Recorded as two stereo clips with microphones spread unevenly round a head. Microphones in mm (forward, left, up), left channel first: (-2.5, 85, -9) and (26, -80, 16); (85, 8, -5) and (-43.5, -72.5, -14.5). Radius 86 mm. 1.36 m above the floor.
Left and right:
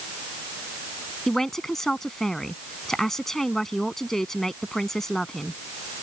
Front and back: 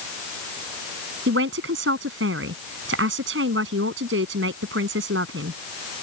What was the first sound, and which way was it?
A man speaking, 170° right.